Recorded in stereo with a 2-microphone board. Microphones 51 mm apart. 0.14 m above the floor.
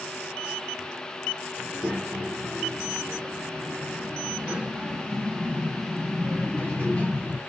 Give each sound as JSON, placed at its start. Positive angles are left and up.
{"t": 1.6, "sound": "a child speaking", "side_deg": -35, "distance_m": 2.5}